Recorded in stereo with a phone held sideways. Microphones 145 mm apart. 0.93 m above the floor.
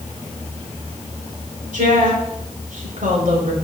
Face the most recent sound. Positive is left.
turn(degrees=-85)